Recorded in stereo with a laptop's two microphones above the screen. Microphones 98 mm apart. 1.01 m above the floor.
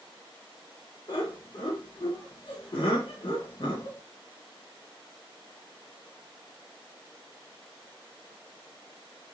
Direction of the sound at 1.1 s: 55° left (ahead or behind).